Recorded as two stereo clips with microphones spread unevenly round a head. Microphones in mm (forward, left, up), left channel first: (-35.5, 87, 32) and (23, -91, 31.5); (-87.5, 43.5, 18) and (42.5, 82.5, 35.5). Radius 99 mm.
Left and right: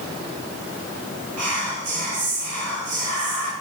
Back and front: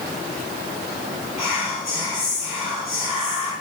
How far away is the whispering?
About 1.1 m.